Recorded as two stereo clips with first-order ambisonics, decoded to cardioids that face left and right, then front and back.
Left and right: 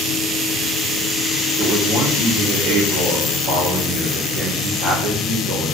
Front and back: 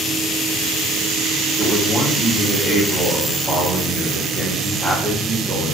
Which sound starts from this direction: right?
A man speaking, at 1.6 s.